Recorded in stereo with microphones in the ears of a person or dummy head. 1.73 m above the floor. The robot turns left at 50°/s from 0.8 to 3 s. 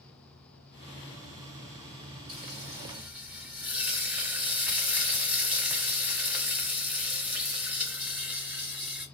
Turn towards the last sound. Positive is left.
turn(degrees=-155)